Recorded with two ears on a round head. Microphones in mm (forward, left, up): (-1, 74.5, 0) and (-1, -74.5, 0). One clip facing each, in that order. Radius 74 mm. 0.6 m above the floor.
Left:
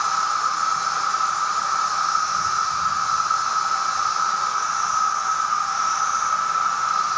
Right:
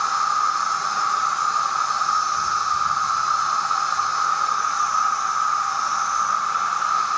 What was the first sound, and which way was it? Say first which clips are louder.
An insect: right 1 dB; 30° left (ahead or behind).